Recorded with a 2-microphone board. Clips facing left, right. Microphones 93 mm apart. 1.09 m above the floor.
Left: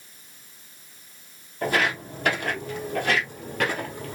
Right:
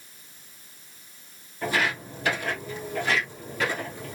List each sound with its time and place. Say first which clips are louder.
1.6 s footsteps: left 2 dB; 55° left (ahead or behind), 2.5 m